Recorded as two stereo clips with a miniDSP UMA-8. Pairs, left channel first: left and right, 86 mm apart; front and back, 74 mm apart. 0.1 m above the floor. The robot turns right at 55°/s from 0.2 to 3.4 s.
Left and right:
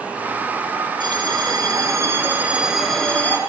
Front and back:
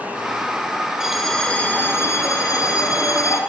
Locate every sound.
1.0 s a bell: 100° right, 3.5 m; by 3.4 s 30° left, 3.5 m